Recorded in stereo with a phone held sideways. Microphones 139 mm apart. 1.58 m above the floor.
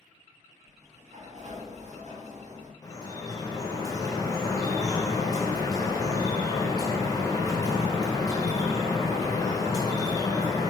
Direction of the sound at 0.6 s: 55° right (ahead or behind).